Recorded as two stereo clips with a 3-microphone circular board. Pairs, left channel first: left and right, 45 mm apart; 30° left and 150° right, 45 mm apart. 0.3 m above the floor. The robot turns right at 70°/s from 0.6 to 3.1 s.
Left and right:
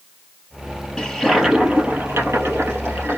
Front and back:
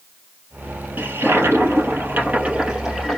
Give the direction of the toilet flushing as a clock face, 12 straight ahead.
6 o'clock.